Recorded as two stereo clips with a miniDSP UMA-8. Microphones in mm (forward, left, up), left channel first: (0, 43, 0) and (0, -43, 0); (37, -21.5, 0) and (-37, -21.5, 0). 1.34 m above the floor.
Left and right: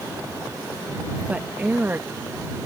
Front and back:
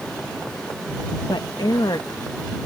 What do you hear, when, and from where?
1.3 s a woman speaking: 15° right; by 2.7 s 30° right